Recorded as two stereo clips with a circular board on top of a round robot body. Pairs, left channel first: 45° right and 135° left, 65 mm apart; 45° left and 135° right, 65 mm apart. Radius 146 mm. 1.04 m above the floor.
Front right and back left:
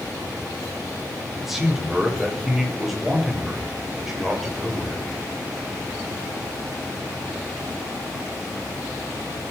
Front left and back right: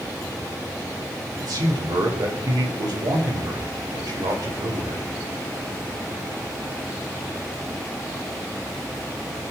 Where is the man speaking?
140° right, 5.5 m.